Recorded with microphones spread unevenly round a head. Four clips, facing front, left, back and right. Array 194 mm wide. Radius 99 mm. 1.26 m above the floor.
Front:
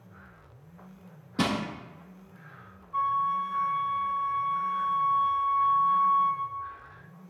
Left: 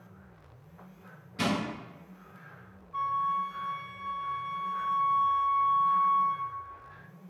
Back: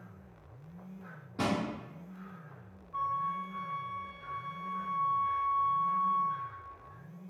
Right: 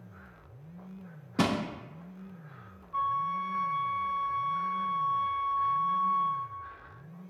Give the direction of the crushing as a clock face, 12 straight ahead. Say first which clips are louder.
Right 2 dB, front 4 dB; 2 o'clock.